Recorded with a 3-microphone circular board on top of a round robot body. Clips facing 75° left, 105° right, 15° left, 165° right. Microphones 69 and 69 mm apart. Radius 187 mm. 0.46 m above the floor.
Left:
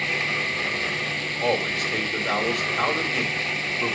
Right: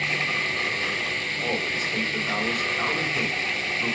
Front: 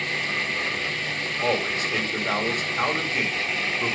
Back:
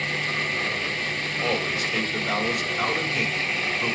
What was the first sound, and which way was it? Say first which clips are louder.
A man speaking: left 6 dB, front 2 dB; 60° left.